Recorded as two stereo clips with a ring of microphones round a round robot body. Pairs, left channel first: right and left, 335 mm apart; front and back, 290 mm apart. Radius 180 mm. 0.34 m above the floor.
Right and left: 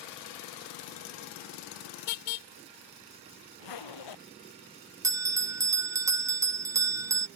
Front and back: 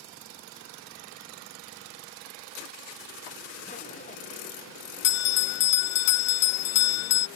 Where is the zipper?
70° right.